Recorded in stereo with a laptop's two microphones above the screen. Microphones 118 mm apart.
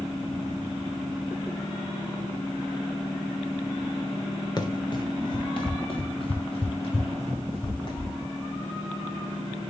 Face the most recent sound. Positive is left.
turn(degrees=45)  # may be behind; listen again after turning